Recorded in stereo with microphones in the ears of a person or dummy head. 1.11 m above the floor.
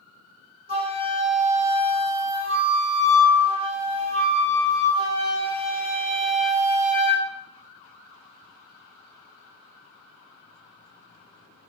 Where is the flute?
25° right (ahead or behind), 0.6 m.